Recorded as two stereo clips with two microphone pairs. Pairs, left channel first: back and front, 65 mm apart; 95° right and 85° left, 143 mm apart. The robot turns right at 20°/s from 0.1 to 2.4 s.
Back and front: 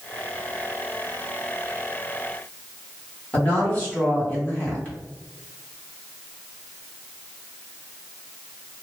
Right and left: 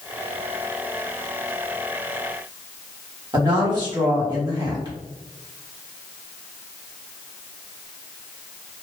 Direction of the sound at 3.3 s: 125° left.